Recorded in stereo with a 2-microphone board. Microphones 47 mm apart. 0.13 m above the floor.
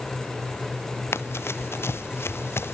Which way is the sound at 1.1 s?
60° left (ahead or behind).